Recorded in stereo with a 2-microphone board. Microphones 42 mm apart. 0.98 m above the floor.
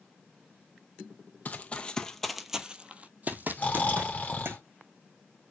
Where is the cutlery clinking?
I don't hear cutlery clinking.